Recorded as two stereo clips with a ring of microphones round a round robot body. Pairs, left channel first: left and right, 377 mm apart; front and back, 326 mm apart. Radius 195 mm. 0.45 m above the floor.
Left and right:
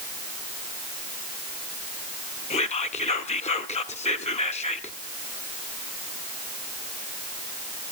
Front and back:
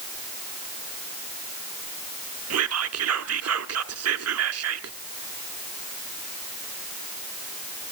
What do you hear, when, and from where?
2.5 s whispering: 160° left, 1.2 m